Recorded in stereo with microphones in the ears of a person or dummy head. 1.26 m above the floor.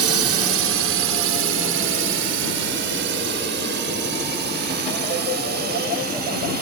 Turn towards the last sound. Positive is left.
turn(degrees=-50)  # may be behind; listen again after turning